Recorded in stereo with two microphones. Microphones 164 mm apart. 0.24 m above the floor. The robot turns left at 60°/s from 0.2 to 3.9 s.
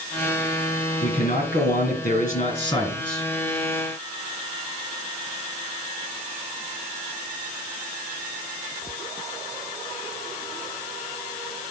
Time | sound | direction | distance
1.0 | a man speaking | 135° left | 3.5 m